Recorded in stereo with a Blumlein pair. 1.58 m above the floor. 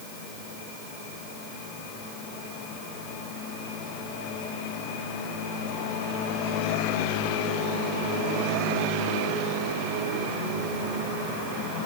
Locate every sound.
Only background noise.